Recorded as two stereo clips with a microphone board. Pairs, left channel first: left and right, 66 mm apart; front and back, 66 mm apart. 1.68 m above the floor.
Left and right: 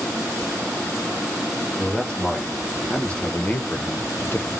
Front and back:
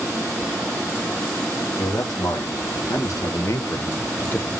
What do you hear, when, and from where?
1.8 s a man speaking: 10° left, 1.8 m; by 4.5 s 60° left, 0.7 m